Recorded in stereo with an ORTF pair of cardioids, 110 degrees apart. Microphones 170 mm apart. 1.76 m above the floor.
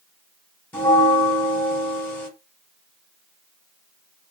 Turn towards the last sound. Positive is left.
turn(degrees=10)